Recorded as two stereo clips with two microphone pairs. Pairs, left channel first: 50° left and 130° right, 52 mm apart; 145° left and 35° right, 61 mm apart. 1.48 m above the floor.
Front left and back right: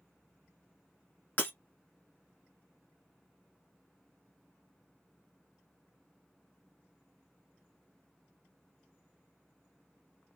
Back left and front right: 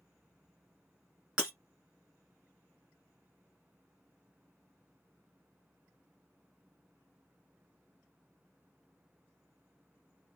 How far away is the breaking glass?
About 1.6 m.